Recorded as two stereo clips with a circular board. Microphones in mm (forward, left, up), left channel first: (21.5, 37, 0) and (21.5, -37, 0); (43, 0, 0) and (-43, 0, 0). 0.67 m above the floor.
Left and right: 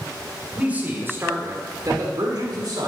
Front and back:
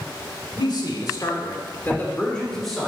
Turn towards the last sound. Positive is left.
turn(degrees=-90)